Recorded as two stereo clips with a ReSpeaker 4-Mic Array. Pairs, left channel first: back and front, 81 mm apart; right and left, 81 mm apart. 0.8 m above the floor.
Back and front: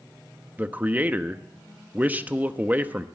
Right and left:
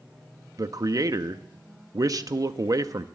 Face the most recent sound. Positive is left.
turn(degrees=65)